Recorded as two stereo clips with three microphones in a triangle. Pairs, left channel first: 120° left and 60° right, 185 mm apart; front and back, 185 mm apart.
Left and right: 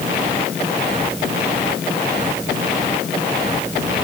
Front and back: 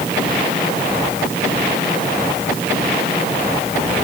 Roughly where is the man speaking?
I don't hear a man speaking.